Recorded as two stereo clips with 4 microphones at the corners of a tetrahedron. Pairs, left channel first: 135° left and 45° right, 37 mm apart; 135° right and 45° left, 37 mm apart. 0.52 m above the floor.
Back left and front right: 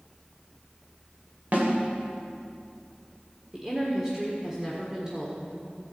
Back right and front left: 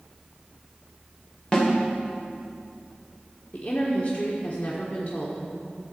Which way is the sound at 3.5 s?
110° right.